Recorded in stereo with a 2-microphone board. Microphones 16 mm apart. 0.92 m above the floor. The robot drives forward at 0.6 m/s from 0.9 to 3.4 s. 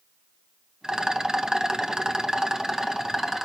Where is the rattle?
35° right (ahead or behind), 1.1 m; by 3.5 s 25° right (ahead or behind), 1.6 m.